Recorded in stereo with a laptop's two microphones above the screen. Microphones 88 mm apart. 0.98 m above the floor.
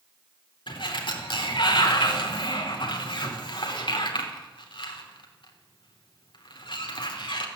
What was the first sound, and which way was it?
A sliding door, 70° left (ahead or behind).